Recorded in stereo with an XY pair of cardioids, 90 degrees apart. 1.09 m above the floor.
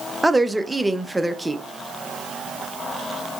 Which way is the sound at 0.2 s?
5° right.